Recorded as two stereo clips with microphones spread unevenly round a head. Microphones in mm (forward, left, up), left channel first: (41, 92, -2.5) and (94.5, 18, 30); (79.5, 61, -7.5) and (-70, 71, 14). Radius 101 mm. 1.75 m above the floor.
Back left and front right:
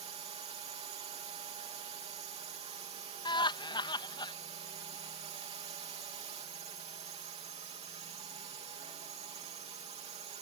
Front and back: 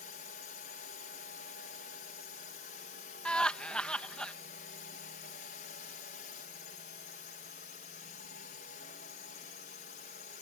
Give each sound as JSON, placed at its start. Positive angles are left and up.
{"t": 0.0, "sound": "a drone", "azimuth_deg": -50}
{"t": 3.2, "sound": "laughter", "azimuth_deg": 85}